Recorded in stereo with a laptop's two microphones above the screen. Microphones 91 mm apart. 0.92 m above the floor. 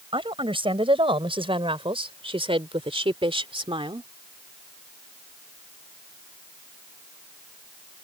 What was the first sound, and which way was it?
A woman speaking, 70° right (ahead or behind).